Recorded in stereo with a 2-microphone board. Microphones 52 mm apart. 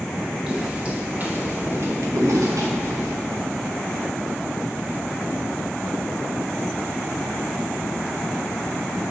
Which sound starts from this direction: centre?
Footsteps, at 0.5 s.